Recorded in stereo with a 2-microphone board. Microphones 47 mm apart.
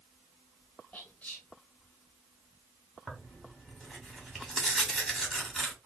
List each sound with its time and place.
0.9 s whispering: 30° left (ahead or behind), 1.2 m
3.1 s tearing paper: 10° left (ahead or behind), 1.5 m